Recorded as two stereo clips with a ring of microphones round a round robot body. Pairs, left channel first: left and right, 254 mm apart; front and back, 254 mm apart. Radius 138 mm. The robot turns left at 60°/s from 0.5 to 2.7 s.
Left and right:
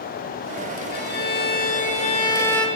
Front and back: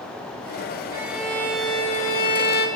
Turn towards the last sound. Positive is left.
turn(degrees=5)